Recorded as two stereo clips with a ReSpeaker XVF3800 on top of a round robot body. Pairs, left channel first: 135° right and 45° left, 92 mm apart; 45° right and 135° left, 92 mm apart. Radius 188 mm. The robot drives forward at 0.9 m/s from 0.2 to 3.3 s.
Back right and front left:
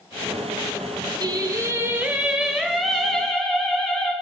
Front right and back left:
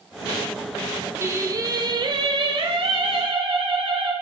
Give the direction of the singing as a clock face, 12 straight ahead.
9 o'clock.